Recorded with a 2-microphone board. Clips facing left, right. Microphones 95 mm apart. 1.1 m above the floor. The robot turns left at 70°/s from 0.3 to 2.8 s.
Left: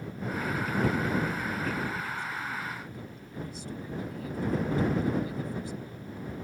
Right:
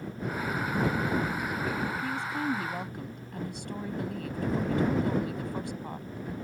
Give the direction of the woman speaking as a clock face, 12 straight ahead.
2 o'clock.